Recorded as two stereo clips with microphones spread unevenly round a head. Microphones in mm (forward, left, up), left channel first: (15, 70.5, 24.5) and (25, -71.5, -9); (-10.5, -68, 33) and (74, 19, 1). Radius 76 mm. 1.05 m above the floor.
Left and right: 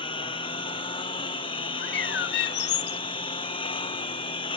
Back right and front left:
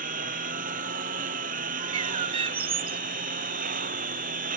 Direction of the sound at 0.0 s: 40° left.